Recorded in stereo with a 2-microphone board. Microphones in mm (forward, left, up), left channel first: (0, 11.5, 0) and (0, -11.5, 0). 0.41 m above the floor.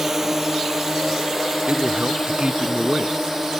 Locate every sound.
0.0 s a drone: 15° right (ahead or behind)
1.7 s a man speaking: 55° right (ahead or behind)